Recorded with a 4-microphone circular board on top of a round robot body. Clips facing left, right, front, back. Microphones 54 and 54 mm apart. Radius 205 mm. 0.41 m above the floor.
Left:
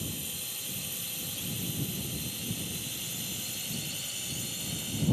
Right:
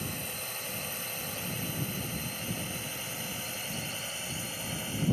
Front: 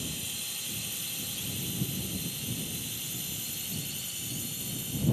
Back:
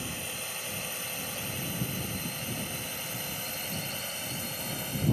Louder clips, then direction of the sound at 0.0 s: Right 2 dB, back 2 dB; 130° right.